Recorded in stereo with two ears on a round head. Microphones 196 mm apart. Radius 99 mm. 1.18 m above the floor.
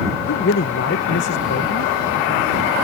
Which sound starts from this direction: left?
A man speaking, at 0.3 s.